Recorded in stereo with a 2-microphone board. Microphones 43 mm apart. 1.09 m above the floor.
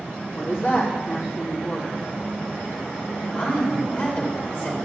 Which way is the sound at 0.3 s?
70° left (ahead or behind).